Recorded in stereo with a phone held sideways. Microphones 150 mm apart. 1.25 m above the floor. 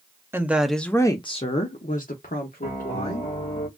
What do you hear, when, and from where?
0.3 s a woman speaking: 15° right (ahead or behind), 0.7 m; by 3.3 s 75° left (ahead or behind), 1.5 m
2.6 s a piano: 50° left (ahead or behind), 1.3 m